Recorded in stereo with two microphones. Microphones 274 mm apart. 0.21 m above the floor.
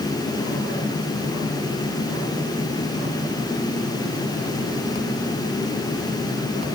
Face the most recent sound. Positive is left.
No sound to turn to.